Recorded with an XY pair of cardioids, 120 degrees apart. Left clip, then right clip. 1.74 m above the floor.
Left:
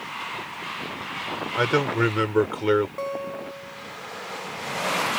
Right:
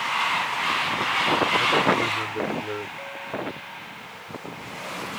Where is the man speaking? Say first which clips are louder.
Right 2 dB; 65° left.